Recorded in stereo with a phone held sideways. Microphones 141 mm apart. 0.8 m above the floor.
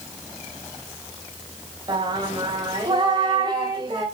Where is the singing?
30° right (ahead or behind), 3 m.